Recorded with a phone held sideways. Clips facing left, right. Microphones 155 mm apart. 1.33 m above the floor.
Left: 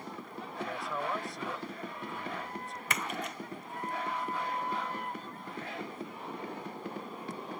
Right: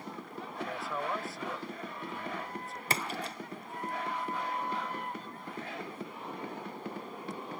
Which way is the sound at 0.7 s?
Centre (ahead or behind).